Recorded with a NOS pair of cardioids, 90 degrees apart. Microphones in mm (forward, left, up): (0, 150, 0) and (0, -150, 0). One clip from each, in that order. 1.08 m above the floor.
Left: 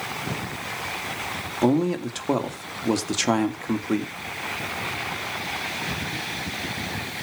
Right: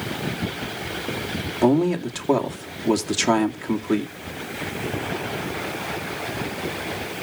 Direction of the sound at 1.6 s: 5° right.